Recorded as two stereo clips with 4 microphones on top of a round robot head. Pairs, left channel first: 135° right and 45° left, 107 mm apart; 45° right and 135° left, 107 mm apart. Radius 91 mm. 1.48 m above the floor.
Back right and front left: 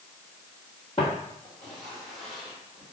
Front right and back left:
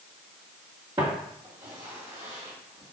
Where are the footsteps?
175° left, 2.0 m; by 2.9 s 120° left, 1.8 m.